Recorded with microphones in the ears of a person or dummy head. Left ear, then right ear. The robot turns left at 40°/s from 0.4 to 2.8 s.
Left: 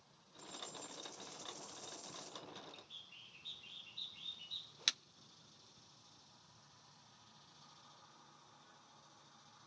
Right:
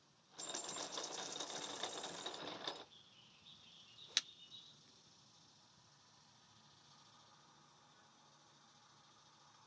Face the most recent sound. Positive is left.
turn(degrees=85)